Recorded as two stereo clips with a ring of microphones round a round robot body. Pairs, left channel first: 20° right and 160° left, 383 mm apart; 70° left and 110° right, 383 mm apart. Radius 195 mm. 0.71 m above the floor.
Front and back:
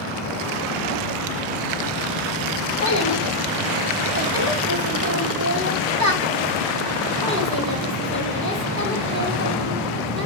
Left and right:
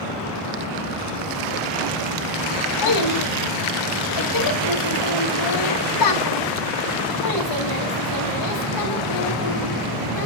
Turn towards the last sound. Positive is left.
turn(degrees=100)